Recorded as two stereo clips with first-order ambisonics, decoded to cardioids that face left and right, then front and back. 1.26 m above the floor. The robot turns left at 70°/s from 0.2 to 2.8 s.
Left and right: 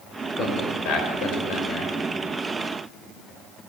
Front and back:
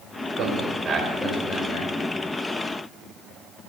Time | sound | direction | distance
0.4 | a man speaking | 145° left | 4.5 m